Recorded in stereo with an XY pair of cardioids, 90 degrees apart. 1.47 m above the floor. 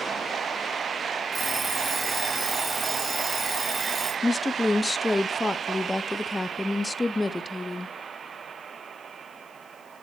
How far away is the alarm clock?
About 4.5 m.